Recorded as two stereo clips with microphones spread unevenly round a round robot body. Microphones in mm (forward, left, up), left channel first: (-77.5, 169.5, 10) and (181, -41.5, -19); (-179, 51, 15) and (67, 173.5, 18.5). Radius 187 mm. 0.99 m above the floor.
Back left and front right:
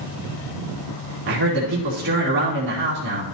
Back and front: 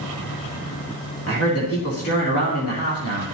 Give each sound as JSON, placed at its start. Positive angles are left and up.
{"t": 1.3, "sound": "a man speaking", "azimuth_deg": -100, "distance_m": 2.5}